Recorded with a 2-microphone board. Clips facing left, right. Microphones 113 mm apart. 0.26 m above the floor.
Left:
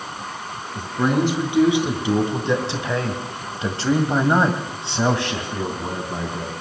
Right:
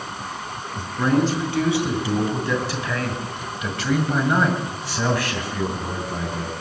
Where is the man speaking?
15° left (ahead or behind), 4 m.